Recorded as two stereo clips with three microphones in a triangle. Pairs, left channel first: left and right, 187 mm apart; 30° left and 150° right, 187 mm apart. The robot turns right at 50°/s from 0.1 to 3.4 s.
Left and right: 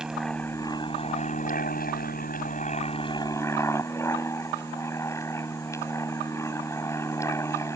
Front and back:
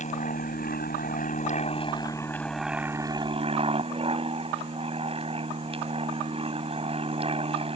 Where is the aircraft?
5° right; by 7.8 s 160° left.